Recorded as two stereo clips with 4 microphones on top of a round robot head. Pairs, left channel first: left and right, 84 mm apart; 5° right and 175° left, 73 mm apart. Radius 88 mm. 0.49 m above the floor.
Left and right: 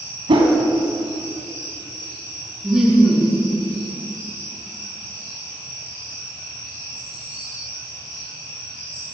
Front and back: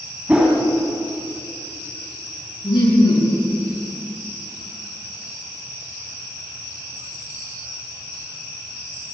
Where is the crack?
I don't hear a crack.